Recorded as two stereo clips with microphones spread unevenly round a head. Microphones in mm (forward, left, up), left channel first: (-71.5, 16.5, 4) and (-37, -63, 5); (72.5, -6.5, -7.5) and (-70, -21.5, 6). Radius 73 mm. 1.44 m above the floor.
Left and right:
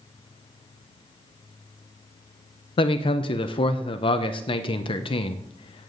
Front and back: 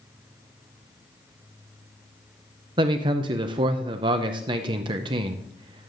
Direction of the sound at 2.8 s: 130° left.